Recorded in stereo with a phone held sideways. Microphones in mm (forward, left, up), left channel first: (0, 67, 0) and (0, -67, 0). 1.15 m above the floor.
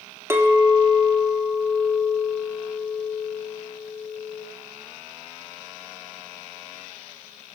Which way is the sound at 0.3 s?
20° right (ahead or behind).